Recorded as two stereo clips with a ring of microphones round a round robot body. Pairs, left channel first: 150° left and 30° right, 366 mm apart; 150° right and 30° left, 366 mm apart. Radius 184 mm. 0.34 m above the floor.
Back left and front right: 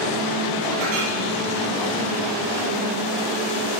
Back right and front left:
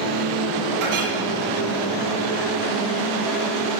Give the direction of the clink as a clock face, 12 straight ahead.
12 o'clock.